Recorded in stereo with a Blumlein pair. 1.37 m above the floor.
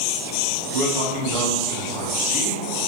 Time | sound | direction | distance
0.7 | a man speaking | 45° right | 1.2 m